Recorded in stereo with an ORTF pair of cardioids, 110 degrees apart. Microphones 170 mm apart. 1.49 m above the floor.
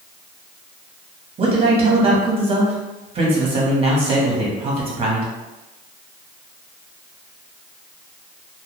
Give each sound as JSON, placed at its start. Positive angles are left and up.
{"t": 1.4, "sound": "a man speaking", "azimuth_deg": -35, "distance_m": 1.2}